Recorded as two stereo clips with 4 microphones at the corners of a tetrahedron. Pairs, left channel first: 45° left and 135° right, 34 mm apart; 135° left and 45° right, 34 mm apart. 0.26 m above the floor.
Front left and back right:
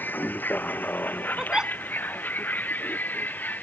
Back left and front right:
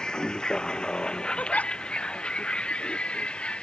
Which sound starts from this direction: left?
A vehicle, at 0.0 s.